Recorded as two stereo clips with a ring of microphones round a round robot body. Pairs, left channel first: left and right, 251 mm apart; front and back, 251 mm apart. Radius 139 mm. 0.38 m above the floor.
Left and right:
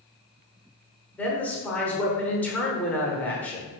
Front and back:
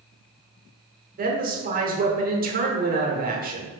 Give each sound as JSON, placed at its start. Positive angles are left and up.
{"t": 1.2, "sound": "a woman speaking", "azimuth_deg": 170, "distance_m": 0.9}